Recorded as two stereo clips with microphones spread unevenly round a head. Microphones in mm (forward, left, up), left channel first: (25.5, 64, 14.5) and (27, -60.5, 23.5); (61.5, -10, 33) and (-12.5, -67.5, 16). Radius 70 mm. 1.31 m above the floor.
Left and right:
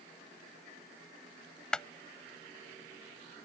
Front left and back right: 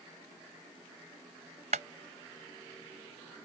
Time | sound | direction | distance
1.7 | a clap | 175° left | ?